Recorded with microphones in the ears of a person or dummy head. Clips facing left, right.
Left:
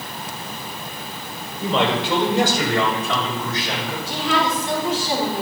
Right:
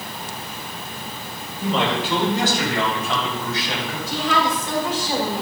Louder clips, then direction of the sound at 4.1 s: Even; 35° left (ahead or behind).